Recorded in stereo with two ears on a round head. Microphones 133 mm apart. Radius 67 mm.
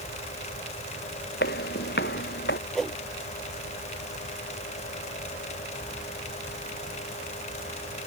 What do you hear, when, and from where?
1.4 s footsteps: 70° left (ahead or behind)
2.8 s a whoosh: centre (ahead or behind)